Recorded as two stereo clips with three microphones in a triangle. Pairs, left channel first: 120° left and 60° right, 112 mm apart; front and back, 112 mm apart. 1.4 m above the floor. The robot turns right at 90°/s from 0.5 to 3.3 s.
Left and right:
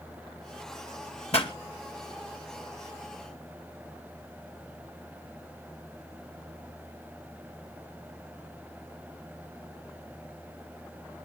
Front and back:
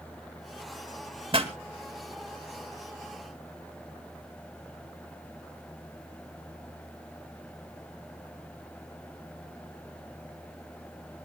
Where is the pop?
140° left, 2 m; by 1.5 s 160° left, 2 m.